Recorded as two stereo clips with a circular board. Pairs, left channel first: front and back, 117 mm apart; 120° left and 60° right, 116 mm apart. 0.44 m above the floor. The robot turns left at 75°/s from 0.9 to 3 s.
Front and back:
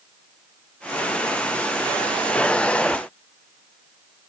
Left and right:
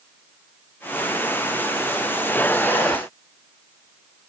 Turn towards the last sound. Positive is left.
No sound to turn to.